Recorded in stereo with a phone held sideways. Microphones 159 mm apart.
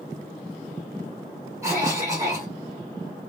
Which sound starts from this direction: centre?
A cough, at 1.6 s.